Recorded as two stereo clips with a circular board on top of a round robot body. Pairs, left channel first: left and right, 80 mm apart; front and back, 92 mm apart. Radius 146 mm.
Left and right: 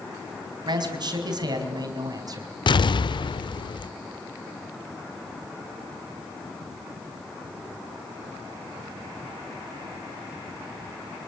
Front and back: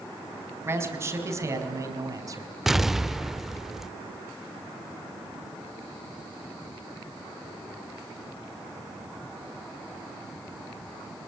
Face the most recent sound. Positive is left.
turn(degrees=95)